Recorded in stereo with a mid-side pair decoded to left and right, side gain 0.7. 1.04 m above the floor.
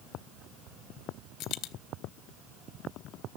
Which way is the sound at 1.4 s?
55° left.